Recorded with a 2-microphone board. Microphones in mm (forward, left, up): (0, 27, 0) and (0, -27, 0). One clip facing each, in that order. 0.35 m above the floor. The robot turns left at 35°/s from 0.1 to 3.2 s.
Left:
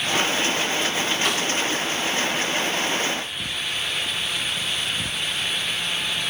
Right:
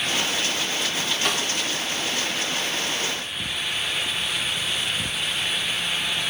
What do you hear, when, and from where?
1.2 s a snare drum: 5° left (ahead or behind), 1.4 m; by 1.5 s centre (ahead or behind), 1.4 m